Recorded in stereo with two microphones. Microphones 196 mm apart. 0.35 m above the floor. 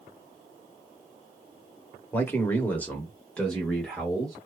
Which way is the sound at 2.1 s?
10° left (ahead or behind).